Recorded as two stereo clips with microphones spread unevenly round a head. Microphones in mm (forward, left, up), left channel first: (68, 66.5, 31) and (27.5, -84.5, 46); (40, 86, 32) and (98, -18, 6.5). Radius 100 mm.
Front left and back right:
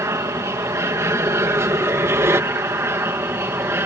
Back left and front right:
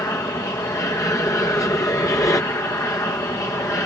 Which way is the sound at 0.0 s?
175° right.